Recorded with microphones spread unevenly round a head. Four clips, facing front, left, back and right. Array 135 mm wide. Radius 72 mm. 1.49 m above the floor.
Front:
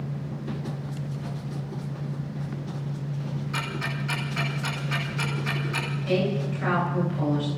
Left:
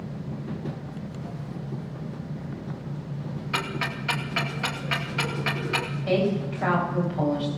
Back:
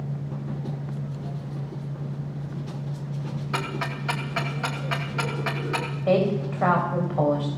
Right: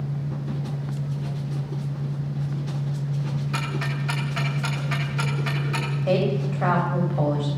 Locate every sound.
3.5 s ticking: 165° left, 2.5 m
6.1 s a woman speaking: 160° right, 8.5 m